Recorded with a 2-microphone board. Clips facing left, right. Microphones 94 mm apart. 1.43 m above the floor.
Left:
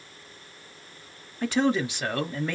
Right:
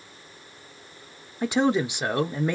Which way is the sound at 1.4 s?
15° right (ahead or behind).